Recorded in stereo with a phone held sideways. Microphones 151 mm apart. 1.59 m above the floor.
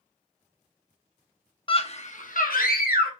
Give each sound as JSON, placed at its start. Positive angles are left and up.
{"t": 1.7, "sound": "a scream", "side_deg": 35, "distance_m": 0.7}